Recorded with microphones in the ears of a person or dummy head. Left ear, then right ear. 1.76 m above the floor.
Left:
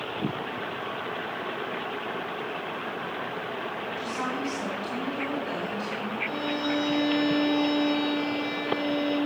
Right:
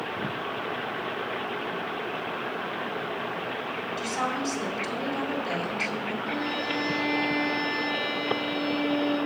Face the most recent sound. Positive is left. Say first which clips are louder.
# left 1 dB
turn(degrees=55)  # may be behind; listen again after turning